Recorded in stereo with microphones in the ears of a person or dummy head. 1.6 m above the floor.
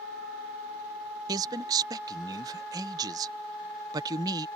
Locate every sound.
1.3 s a man speaking: 20° right (ahead or behind)